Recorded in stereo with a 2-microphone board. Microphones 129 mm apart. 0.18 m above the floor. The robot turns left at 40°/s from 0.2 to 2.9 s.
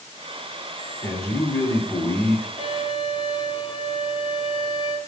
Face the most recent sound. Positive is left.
turn(degrees=40)  # may be behind; listen again after turning